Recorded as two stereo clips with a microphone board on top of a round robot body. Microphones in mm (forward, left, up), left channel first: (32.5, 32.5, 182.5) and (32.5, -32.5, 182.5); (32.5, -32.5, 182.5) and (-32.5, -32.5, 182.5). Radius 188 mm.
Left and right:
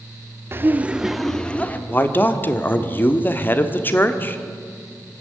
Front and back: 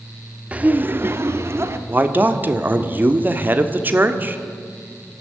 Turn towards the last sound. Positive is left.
turn(degrees=135)